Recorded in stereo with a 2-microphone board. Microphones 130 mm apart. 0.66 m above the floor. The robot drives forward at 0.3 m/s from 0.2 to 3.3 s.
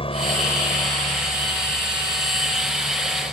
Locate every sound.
0.0 s a helicopter: 45° left (ahead or behind)